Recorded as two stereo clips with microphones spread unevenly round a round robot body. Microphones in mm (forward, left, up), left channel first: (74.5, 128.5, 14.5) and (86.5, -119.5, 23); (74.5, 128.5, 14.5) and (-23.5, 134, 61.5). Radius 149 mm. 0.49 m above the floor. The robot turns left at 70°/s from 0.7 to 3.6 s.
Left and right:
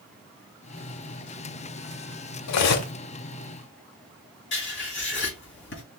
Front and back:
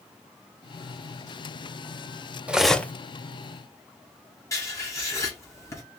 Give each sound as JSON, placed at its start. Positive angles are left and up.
{"t": 2.5, "sound": "cutlery clinking", "azimuth_deg": 90, "distance_m": 0.9}
{"t": 4.5, "sound": "writing", "azimuth_deg": 50, "distance_m": 2.5}